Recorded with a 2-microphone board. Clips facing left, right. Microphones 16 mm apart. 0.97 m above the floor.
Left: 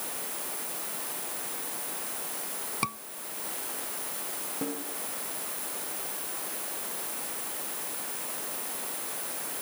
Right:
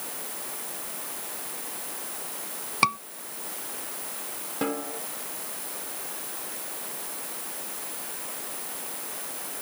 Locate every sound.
2.8 s a scream: 45° right (ahead or behind)
4.6 s a snare drum: 60° right (ahead or behind)